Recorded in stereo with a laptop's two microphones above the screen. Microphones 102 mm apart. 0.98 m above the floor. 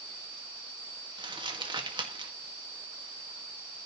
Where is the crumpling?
50° right (ahead or behind), 1.9 m.